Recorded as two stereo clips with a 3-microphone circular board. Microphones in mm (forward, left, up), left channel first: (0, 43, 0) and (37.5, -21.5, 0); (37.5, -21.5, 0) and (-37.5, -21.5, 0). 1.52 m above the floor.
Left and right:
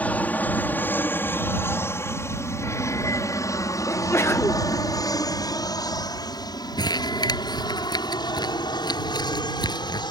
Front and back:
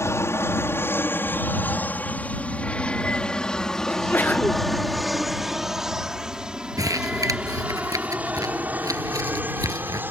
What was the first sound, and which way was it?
An aircraft, 50° left.